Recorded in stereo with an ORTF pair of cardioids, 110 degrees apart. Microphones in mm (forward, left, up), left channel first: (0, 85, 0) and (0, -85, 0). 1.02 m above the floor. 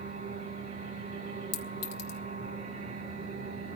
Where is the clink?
70° left, 2.0 m.